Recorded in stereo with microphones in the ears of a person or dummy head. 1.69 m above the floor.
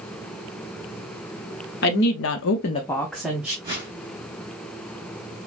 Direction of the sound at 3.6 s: 20° right (ahead or behind).